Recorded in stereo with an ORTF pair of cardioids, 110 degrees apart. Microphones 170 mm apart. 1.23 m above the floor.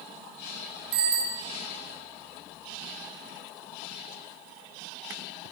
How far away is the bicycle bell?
About 7.5 m.